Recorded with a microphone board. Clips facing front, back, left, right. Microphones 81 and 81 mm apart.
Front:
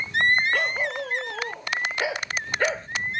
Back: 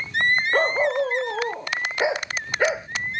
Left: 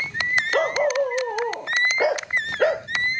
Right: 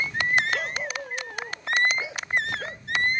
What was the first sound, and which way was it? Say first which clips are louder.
A dog barking: back 6 dB, left 10 dB; 130° left.